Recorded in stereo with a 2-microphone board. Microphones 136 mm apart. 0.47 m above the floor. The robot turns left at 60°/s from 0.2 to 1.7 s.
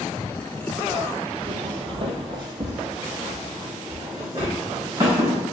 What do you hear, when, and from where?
1.4 s footsteps: 35° right (ahead or behind), 0.6 m; by 5.4 s 25° right (ahead or behind), 2.5 m